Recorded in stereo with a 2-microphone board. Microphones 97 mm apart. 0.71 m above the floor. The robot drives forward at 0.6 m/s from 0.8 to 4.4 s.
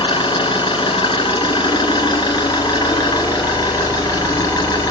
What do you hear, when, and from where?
0.0 s an engine running: 55° left (ahead or behind), 4 m; by 4.9 s 35° left (ahead or behind), 5.5 m